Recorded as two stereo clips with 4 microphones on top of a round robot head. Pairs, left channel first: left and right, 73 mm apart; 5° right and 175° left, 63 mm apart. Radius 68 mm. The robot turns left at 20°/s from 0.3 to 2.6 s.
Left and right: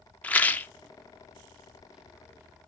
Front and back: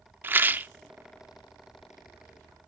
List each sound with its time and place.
0.2 s a rattle: 145° left, 0.7 m; by 0.7 s 140° left, 0.7 m